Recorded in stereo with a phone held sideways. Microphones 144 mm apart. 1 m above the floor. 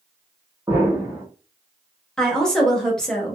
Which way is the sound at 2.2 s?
5° left (ahead or behind).